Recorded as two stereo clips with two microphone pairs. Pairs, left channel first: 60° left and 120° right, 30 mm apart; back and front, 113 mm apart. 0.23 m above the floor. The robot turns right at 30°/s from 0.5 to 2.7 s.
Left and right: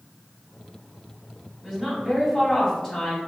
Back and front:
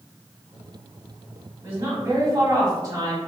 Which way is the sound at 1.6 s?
55° right.